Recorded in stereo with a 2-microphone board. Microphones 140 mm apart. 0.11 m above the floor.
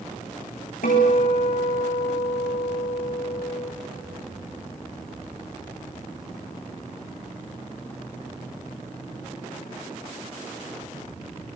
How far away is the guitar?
About 7.5 m.